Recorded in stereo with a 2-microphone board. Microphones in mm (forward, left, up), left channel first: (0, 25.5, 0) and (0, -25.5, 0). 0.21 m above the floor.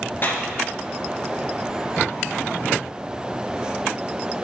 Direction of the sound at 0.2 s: 45° left (ahead or behind).